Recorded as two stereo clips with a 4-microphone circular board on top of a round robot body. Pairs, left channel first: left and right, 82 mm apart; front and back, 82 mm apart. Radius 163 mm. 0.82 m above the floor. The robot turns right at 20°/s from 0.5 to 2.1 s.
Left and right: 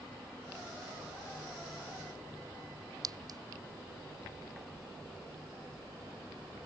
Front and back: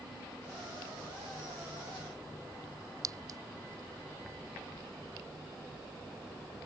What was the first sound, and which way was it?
A clink, 130° right.